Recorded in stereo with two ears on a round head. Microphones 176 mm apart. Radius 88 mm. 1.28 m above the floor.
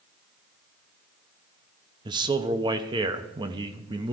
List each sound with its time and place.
2.0 s a man speaking: 25° right (ahead or behind), 0.8 m